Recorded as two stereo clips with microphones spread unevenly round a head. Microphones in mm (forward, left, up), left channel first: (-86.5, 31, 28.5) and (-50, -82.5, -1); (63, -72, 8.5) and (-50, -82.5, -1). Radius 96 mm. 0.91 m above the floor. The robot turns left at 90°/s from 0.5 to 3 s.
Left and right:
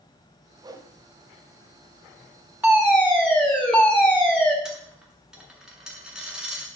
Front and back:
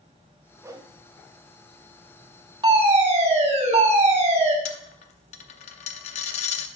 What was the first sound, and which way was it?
A whoosh, 115° right.